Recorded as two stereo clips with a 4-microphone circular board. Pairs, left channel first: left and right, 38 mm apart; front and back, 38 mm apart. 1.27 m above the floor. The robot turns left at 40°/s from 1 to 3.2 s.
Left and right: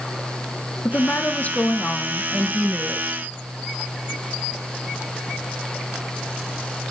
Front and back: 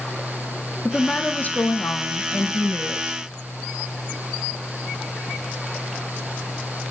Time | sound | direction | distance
0.8 | a woman speaking | 60° left | 0.8 m